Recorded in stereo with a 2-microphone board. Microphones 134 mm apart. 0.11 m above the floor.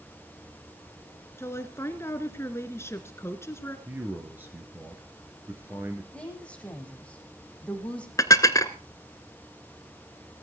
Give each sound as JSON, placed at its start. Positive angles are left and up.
{"t": 1.4, "sound": "a woman speaking", "side_deg": 20, "distance_m": 1.6}
{"t": 3.9, "sound": "a man speaking", "side_deg": -15, "distance_m": 2.0}
{"t": 6.1, "sound": "a woman speaking", "side_deg": 10, "distance_m": 5.0}
{"t": 8.2, "sound": "dishes clattering", "side_deg": 25, "distance_m": 1.0}